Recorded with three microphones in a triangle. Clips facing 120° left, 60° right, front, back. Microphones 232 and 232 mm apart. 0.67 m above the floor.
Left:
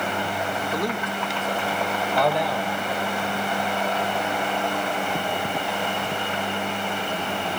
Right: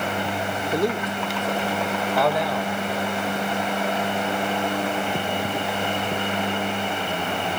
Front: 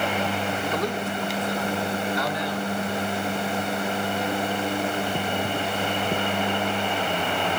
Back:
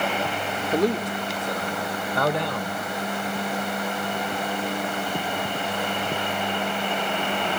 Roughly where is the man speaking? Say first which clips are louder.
Right 6 dB, back 4 dB; behind right.